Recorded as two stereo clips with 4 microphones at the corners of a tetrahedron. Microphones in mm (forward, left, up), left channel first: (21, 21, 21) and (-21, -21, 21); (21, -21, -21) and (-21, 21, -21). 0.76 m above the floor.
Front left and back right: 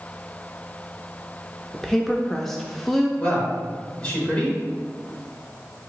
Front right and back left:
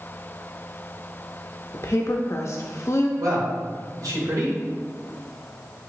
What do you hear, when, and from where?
1.7 s a woman speaking: 40° right, 0.5 m
3.2 s a man speaking: 120° left, 2.5 m